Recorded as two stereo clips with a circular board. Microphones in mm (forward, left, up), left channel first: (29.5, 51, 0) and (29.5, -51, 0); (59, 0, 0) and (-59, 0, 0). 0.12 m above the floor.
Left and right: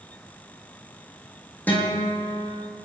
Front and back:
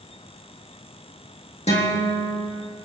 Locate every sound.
1.7 s a guitar: 15° left, 5.5 m